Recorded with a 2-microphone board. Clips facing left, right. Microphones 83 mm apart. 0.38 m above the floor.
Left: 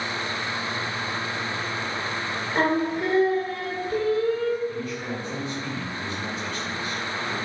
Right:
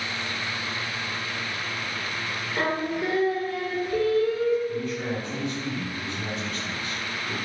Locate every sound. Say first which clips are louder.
2.5 s singing: left 4 dB; 45° left (ahead or behind), 0.6 m
4.7 s a man speaking: right 2 dB; 35° right (ahead or behind), 1.9 m